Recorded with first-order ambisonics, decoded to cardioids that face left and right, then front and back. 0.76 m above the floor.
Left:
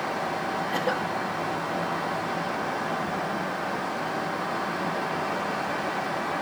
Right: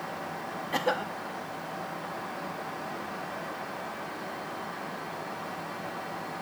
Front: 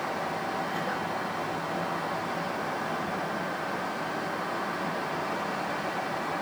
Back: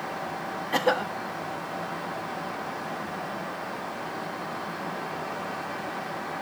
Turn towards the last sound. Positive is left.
turn(degrees=-170)